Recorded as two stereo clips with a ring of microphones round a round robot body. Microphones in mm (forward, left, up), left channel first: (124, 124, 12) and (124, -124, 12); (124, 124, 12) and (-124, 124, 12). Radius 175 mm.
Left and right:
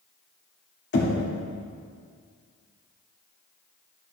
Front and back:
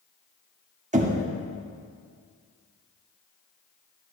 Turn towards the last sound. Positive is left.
turn(degrees=125)